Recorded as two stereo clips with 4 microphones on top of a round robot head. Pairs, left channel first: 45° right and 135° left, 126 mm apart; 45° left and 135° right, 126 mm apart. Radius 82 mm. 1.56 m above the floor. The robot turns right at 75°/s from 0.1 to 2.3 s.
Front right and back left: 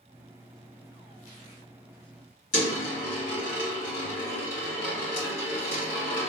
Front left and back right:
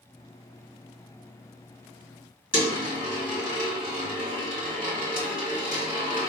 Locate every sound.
2.5 s a dropped coin: 55° right, 2.0 m